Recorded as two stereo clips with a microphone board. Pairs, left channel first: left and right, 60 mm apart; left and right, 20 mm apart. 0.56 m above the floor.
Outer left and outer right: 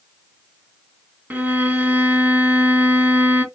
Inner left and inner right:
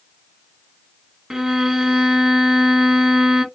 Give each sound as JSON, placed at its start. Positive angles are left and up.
{"t": 1.3, "sound": "a violin", "side_deg": -30, "distance_m": 1.9}